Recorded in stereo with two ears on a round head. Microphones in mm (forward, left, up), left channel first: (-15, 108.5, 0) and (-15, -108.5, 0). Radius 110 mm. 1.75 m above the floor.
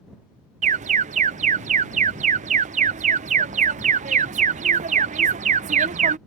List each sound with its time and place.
0.6 s an alarm: 30° right (ahead or behind)